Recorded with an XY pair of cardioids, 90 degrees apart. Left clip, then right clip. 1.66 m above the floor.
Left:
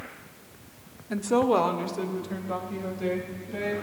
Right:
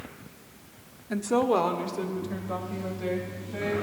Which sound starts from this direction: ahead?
A woman speaking, at 1.1 s.